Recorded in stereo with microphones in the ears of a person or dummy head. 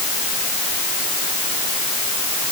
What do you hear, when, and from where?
Only background noise.